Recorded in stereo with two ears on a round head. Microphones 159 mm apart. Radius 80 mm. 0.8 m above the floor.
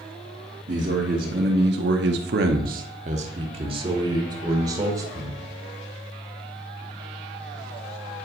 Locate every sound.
0.7 s a man speaking: 40° right (ahead or behind), 1.5 m; by 5.4 s 20° right (ahead or behind), 3 m